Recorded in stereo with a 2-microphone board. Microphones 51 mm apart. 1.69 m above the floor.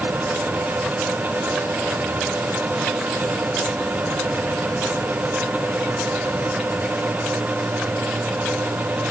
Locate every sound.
Only background noise.